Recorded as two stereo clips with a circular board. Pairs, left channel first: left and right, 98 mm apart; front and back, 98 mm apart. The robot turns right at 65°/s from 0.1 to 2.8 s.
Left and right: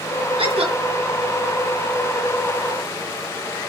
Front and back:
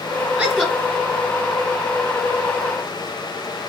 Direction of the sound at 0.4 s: 100° right.